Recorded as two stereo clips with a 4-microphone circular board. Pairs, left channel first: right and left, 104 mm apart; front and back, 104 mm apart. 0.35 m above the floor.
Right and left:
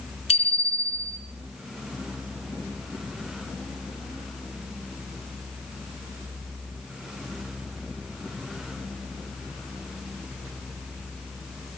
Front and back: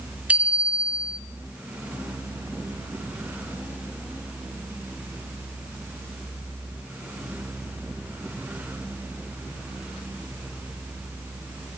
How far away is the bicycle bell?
About 3.5 m.